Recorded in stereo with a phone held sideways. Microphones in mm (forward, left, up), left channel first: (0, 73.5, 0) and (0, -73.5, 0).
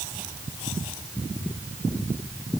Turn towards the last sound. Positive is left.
No sound to turn to.